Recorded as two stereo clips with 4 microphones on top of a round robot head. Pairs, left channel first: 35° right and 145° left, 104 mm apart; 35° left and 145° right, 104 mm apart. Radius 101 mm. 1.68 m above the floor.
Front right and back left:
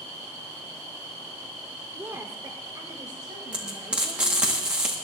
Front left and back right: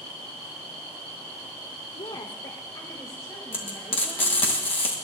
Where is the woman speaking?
70° left, 1.0 m; by 4.5 s 100° left, 4 m.